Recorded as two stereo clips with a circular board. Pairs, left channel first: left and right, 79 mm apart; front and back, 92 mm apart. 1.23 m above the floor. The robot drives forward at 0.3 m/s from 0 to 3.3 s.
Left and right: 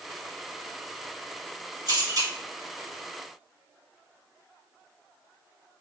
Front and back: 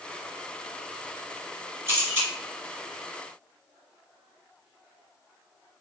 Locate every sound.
1.9 s a camera shutter: 120° right, 2 m; by 2.3 s 125° right, 2 m